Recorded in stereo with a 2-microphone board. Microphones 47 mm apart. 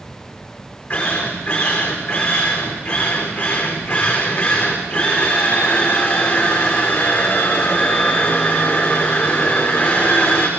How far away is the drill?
About 8 m.